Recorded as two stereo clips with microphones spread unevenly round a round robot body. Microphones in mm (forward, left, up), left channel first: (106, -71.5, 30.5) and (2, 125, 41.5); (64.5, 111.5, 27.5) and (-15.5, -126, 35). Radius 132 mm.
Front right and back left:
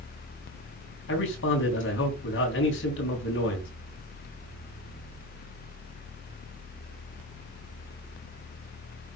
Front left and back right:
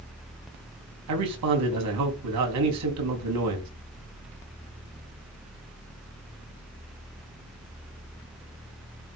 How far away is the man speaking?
About 3.5 m.